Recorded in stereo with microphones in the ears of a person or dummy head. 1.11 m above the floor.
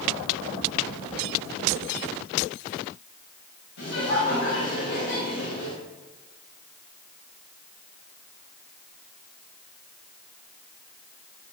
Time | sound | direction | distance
3.8 | laughter | 70° left (ahead or behind) | 7.5 m